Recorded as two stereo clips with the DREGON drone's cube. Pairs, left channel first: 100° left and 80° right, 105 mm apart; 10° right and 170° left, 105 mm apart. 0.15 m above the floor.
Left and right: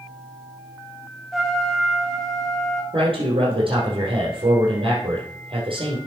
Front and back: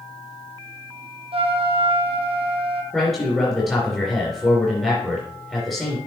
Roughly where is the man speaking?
Right.